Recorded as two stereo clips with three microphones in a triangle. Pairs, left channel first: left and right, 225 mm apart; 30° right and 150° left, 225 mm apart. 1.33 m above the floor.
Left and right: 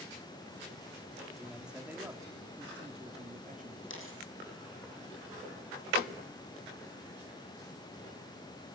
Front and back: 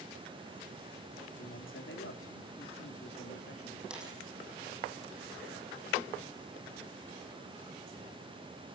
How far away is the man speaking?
About 3 m.